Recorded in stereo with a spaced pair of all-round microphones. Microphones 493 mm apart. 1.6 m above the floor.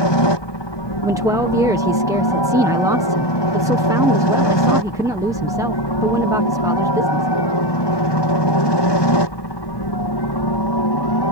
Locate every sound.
0.0 s a helicopter: 60° left (ahead or behind); by 11.3 s 55° left (ahead or behind)
1.0 s a man speaking: 5° right (ahead or behind)